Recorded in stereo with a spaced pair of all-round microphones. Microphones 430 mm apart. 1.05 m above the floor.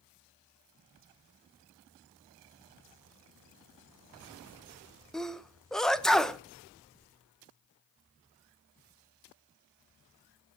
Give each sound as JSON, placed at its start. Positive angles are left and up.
{"t": 5.1, "sound": "a sneeze", "side_deg": 0, "distance_m": 0.6}